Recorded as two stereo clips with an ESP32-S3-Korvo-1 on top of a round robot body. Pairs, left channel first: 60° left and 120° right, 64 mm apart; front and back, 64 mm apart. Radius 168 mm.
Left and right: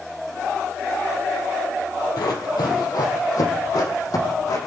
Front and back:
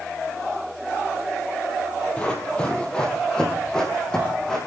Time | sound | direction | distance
2.2 | running footsteps | 70° left | 2.5 m